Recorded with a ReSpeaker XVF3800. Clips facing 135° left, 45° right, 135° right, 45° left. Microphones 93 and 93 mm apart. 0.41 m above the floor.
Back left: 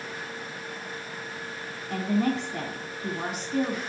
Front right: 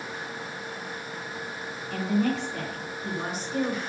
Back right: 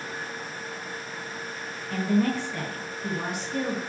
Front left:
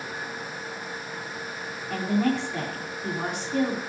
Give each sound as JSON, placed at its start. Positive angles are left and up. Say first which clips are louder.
{"t": 1.9, "sound": "a woman speaking", "louder": "even, even", "azimuth_deg": 115, "distance_m": 3.0}